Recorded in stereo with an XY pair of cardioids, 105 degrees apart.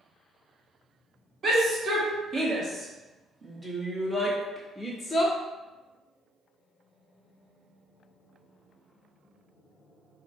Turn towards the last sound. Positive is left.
turn(degrees=30)